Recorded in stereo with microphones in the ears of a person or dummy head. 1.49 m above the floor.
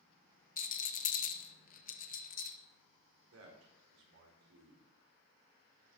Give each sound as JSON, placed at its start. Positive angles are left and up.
{"t": 0.6, "sound": "a rattle", "side_deg": 50, "distance_m": 0.9}
{"t": 3.3, "sound": "a man speaking", "side_deg": -85, "distance_m": 4.0}